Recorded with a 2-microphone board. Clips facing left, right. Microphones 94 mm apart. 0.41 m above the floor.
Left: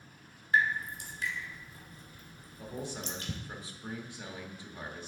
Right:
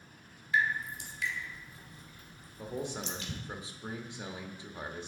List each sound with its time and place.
0.5 s dripping: 45° left (ahead or behind), 1.6 m
2.6 s a man speaking: 20° right (ahead or behind), 0.8 m